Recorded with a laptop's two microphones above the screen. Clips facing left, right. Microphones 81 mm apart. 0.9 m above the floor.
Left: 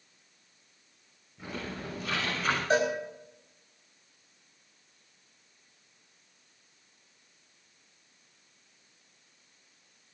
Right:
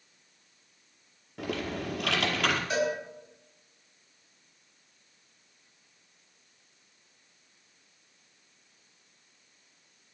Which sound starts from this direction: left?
A cowbell, at 2.7 s.